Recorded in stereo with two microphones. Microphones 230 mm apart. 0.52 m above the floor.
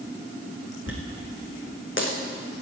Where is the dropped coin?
60° left (ahead or behind), 2.5 m.